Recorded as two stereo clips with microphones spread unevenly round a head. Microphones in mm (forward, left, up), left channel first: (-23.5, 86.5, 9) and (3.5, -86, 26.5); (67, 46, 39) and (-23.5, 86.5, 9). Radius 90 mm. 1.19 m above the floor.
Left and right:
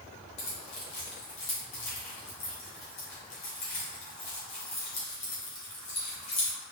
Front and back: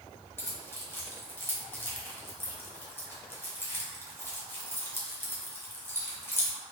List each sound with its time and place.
0.4 s keys jangling: 40° left, 1.4 m